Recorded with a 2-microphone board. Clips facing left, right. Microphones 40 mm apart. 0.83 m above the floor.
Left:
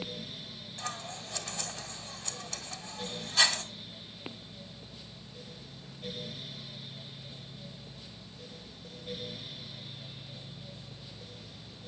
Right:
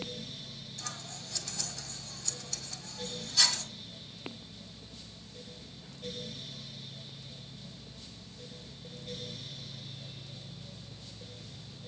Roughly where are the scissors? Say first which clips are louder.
Left 6 dB; left.